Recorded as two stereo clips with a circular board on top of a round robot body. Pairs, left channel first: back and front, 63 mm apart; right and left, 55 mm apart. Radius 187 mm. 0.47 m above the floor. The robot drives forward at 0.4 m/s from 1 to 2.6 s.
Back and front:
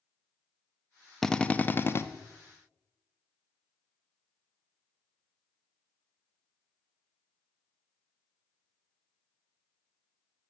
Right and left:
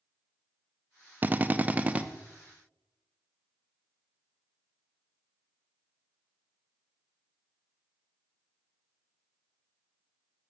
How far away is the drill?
About 0.6 m.